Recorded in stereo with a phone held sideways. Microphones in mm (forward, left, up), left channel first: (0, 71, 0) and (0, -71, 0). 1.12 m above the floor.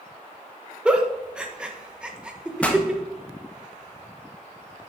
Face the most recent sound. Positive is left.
turn(degrees=10)  # may be behind; listen again after turning